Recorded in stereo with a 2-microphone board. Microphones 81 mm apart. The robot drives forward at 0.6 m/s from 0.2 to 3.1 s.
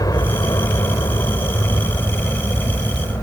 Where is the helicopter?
50° left (ahead or behind); by 3.2 s 40° left (ahead or behind).